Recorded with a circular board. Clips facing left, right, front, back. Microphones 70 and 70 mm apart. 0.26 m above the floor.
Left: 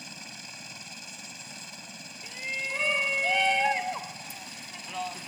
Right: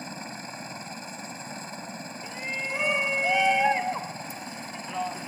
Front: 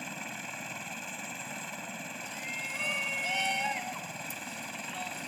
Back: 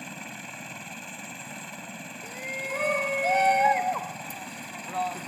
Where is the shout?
165° right.